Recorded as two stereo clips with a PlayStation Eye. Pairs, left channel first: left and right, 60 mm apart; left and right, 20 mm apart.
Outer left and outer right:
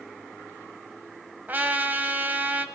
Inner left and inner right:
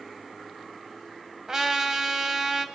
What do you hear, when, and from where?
1.5 s a trumpet: 30° right (ahead or behind), 1.5 m